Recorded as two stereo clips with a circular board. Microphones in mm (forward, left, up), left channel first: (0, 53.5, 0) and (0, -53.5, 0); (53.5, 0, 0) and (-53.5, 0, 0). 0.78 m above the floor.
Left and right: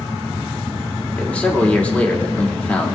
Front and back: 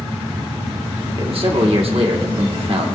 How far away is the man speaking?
About 1.9 m.